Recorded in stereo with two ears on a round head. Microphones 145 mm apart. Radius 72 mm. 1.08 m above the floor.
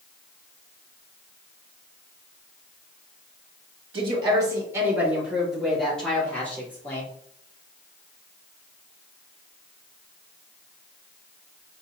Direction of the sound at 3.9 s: 35° right (ahead or behind).